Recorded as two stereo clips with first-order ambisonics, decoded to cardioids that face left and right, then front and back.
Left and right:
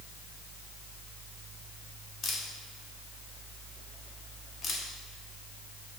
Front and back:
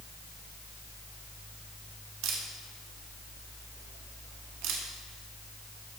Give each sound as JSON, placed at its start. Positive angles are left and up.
{"t": 2.2, "sound": "a camera shutter", "azimuth_deg": 155, "distance_m": 1.7}